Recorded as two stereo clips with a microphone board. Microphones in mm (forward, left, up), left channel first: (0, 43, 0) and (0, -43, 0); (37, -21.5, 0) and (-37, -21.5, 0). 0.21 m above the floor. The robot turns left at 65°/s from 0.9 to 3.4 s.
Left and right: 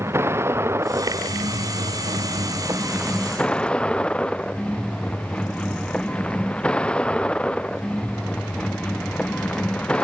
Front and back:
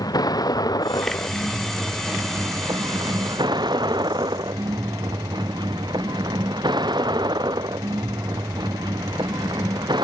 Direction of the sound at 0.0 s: 30° right.